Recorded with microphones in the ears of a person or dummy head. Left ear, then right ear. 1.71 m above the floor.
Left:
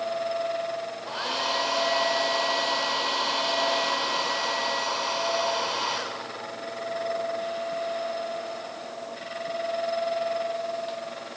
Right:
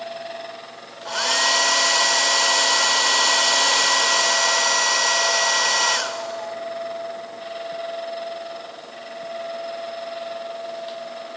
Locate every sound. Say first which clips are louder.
1.1 s a hair dryer: right 9 dB; 60° right (ahead or behind), 0.9 m